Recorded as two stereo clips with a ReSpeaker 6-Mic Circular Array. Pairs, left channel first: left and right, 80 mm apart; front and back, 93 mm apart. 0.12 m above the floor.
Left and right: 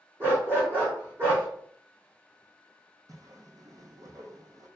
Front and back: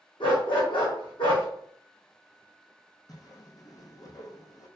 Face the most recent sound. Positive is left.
turn(degrees=-50)